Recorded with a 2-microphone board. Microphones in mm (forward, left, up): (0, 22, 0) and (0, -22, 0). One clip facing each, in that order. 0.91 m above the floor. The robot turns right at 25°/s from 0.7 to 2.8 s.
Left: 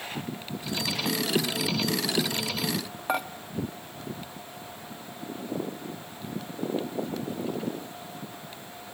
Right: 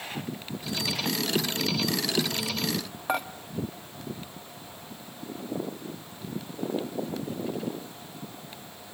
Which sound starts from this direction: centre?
Dishes clattering, at 3.1 s.